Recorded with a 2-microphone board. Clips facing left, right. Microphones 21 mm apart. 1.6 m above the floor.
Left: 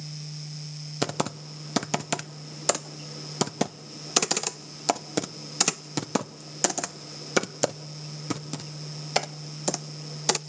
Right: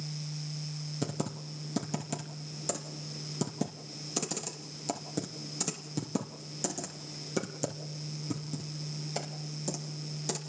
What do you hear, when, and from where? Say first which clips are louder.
1.0 s typing on a keyboard: left 9 dB; 60° left (ahead or behind), 0.9 m